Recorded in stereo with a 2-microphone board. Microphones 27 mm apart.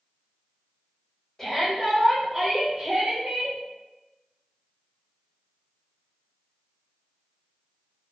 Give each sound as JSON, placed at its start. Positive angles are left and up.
{"t": 1.4, "sound": "a shout", "side_deg": 20, "distance_m": 1.1}